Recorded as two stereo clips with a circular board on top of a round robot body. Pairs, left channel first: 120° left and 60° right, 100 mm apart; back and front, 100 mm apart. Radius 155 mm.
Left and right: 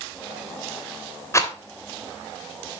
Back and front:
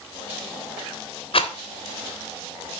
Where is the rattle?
Straight behind, 2.0 m.